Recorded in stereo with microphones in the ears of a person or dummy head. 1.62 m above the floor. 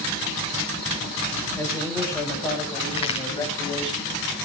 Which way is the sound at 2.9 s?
25° left (ahead or behind).